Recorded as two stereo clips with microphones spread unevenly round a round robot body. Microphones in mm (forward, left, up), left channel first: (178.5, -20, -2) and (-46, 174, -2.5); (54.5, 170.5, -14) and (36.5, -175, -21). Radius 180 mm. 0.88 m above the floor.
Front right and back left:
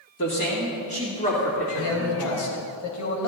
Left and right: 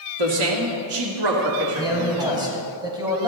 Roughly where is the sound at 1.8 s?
Ahead.